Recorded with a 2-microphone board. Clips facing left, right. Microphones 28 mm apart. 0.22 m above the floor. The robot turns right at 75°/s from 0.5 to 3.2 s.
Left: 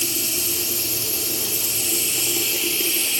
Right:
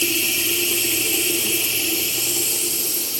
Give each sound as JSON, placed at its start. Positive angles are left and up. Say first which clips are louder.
{"t": 0.0, "sound": "running water", "louder": "right 5 dB", "azimuth_deg": -130, "distance_m": 0.7}